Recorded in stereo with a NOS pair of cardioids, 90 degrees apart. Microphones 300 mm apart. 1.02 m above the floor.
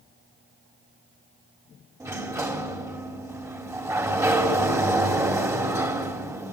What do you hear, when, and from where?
2.0 s a sliding door: 10° right, 3.5 m